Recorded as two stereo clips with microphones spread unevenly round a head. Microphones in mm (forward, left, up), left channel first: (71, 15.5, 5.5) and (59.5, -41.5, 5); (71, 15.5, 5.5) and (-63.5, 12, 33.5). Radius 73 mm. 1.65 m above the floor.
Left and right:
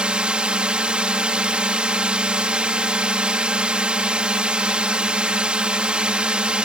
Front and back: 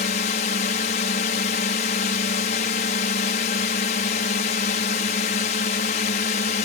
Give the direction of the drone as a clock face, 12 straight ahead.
1 o'clock.